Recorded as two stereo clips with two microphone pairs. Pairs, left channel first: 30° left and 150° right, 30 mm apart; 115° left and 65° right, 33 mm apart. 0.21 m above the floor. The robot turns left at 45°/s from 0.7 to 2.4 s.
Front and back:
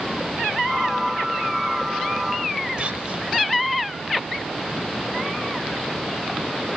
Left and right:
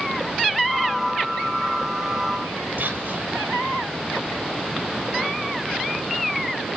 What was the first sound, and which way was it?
Whispering, 100° right.